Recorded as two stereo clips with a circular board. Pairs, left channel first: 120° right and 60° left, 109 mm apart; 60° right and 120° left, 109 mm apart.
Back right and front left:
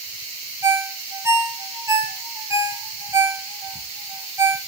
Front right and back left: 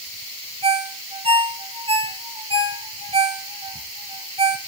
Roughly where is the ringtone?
Behind left.